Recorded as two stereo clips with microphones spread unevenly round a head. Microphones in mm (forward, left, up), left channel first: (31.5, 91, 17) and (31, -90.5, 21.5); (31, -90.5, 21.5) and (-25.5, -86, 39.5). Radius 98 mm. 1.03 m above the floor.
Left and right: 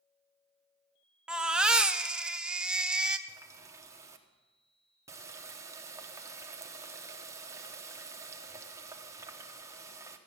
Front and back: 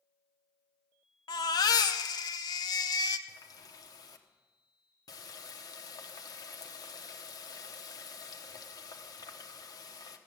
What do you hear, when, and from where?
1.3 s a baby crying: 5° right, 0.6 m
3.3 s a running tap: 15° right, 1.0 m